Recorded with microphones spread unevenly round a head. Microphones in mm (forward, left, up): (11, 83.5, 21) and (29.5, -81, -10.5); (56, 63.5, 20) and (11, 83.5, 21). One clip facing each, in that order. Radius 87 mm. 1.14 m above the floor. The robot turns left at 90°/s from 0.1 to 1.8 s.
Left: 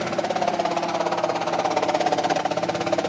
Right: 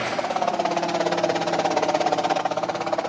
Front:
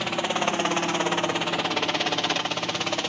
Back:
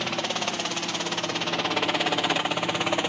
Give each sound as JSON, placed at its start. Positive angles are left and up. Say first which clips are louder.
{"t": 0.0, "sound": "a helicopter", "louder": "left 1 dB, front 3 dB", "azimuth_deg": 55}